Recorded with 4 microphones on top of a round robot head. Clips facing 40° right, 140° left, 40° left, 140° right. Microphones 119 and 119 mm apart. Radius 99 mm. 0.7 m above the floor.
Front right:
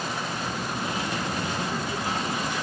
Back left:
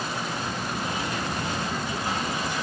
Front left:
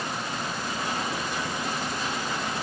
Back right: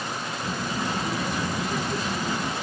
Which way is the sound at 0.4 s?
120° right.